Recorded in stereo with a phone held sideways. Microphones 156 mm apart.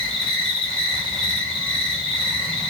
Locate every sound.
0.0 s an insect: centre (ahead or behind), 1.9 m